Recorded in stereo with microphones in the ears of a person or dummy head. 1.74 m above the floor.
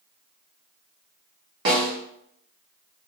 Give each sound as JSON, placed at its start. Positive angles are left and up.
{"t": 1.6, "sound": "a snare drum", "side_deg": -20, "distance_m": 0.8}